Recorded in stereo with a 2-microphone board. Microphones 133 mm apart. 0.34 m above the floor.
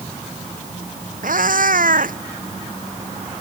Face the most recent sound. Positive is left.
turn(degrees=-75)  # may be behind; listen again after turning